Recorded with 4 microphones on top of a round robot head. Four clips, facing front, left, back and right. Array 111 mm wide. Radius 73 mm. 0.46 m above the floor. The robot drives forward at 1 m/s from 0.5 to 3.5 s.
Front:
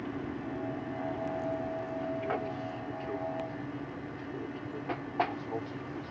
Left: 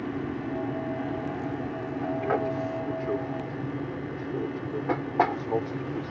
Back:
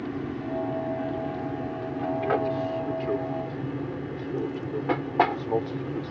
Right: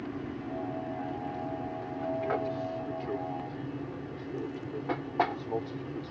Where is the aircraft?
140° left; by 6.1 s 155° left.